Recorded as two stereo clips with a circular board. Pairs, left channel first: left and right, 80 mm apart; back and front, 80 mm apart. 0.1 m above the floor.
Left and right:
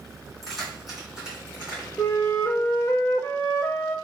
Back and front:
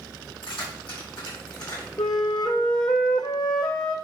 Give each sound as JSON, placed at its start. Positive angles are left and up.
{"t": 0.4, "sound": "keys jangling", "azimuth_deg": 175, "distance_m": 3.0}
{"t": 2.0, "sound": "a flute", "azimuth_deg": 150, "distance_m": 0.9}